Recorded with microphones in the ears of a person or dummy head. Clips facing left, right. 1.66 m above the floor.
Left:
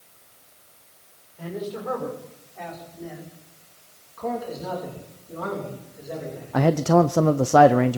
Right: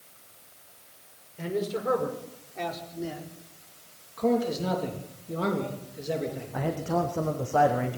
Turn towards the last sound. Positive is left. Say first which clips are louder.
# left 11 dB
turn(degrees=70)  # may be behind; listen again after turning